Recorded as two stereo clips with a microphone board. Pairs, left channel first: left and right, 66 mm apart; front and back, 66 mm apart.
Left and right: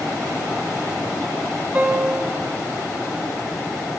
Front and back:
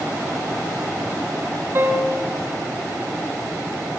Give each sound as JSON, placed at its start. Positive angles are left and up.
{"t": 1.8, "sound": "a piano", "azimuth_deg": -150, "distance_m": 0.8}